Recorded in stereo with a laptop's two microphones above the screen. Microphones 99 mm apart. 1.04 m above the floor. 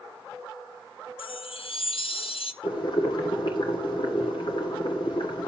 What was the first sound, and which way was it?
A chime, 65° left (ahead or behind).